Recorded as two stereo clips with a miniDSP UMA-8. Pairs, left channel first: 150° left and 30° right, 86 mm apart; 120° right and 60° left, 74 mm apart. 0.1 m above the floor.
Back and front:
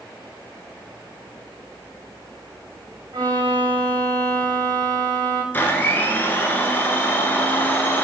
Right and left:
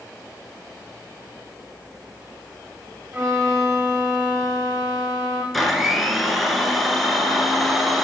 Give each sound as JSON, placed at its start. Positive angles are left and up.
{"t": 3.1, "sound": "a violin", "azimuth_deg": -15, "distance_m": 2.0}
{"t": 5.5, "sound": "a blender", "azimuth_deg": 150, "distance_m": 0.9}